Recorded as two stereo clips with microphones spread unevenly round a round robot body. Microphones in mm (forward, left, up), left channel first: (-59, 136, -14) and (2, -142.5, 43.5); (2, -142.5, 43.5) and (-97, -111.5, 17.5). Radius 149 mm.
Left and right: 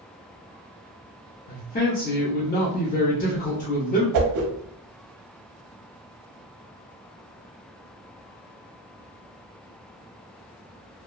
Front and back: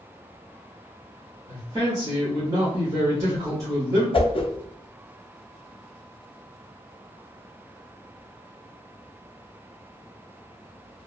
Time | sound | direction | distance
1.5 | a man speaking | 140° left | 0.7 m
4.1 | a whoosh | 60° right | 0.6 m